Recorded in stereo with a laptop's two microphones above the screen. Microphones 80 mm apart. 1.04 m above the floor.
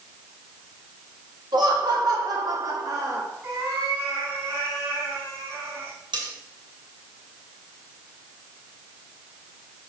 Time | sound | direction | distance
1.5 | laughter | 70° right (ahead or behind) | 2.5 m
3.4 | a cat meowing | 40° right (ahead or behind) | 4 m
6.1 | cutlery clinking | 80° right | 3.5 m